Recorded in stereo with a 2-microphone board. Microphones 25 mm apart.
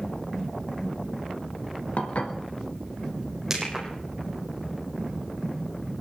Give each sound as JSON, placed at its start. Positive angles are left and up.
{"t": 2.0, "sound": "dishes clattering", "side_deg": 55, "distance_m": 2.5}
{"t": 3.5, "sound": "crushing", "side_deg": -15, "distance_m": 6.0}